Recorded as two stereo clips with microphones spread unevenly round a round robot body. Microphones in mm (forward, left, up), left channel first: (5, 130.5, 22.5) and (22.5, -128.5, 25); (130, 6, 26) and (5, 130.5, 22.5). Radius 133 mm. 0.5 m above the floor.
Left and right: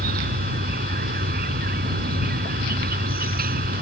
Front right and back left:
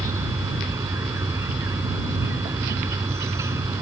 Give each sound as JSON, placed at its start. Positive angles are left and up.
{"t": 0.0, "sound": "an insect", "azimuth_deg": -145}